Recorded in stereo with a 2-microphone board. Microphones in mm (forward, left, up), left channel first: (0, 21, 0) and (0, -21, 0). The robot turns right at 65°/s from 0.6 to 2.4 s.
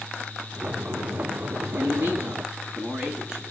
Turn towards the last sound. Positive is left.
turn(degrees=-25)